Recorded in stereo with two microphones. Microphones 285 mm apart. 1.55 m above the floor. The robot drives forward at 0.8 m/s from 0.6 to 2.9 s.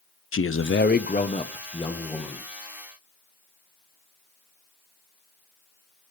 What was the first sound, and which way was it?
A man speaking, 50° left (ahead or behind).